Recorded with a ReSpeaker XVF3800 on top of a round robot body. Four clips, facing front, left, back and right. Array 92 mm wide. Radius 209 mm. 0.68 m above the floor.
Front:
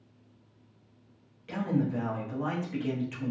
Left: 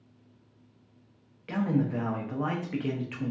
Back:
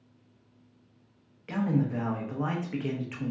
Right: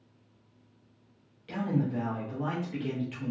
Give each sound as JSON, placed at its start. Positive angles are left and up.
{"t": 1.5, "sound": "a man speaking", "azimuth_deg": 130, "distance_m": 0.9}